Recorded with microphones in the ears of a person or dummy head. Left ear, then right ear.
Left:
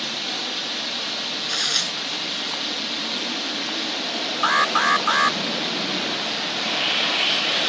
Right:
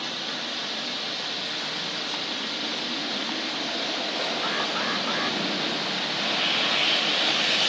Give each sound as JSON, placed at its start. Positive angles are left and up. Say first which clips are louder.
{"t": 0.0, "sound": "a drone", "louder": "left 4 dB", "side_deg": 10}
{"t": 1.5, "sound": "tearing paper", "louder": "left 7 dB", "side_deg": 75}
{"t": 4.4, "sound": "an alarm", "louder": "left 8 dB", "side_deg": 50}